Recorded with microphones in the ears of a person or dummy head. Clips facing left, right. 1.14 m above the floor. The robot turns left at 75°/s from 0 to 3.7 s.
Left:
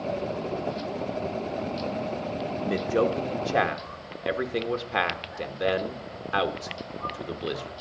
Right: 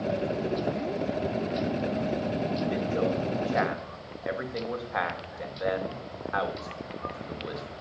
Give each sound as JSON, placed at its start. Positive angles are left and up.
{"t": 2.6, "sound": "a man speaking", "side_deg": 60, "distance_m": 1.2}